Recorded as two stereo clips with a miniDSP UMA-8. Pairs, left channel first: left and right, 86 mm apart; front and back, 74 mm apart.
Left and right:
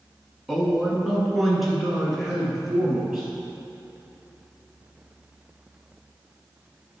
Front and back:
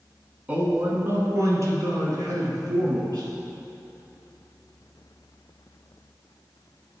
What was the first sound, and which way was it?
A man speaking, 170° right.